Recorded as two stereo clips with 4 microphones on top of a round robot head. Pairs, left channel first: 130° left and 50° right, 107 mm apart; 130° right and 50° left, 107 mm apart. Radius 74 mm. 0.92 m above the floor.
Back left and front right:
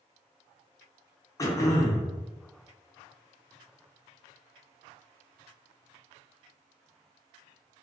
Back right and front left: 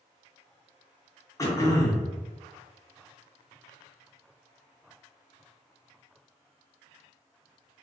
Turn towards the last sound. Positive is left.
turn(degrees=180)